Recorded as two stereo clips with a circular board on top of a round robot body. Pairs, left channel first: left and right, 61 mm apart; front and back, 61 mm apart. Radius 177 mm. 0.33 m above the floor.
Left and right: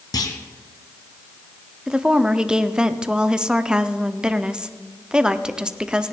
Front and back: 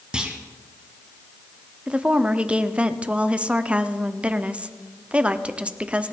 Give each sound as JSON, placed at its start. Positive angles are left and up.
{"t": 0.1, "sound": "a clunk", "azimuth_deg": 105, "distance_m": 1.3}
{"t": 1.9, "sound": "a woman speaking", "azimuth_deg": -145, "distance_m": 0.9}